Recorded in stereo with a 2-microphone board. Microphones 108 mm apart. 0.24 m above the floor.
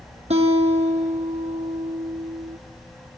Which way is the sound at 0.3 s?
90° right.